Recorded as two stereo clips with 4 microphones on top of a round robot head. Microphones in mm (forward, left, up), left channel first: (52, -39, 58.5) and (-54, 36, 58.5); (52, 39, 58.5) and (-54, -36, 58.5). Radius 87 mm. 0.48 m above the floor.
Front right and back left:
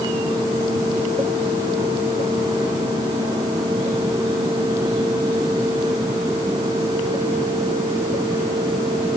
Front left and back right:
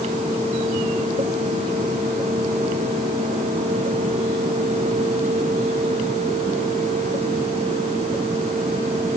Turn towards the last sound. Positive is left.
No sound to turn to.